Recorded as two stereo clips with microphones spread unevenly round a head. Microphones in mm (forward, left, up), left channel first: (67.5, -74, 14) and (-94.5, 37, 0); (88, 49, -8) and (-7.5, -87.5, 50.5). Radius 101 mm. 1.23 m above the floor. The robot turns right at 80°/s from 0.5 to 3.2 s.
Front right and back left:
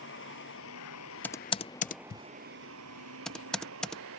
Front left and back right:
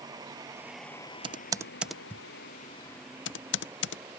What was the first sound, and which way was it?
A vehicle, 60° right.